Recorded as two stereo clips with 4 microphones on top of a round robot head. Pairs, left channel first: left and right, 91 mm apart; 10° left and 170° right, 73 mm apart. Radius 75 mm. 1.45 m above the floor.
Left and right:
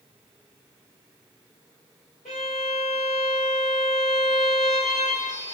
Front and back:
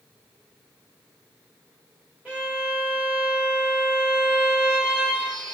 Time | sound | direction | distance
2.2 | a violin | 110° left | 2.5 m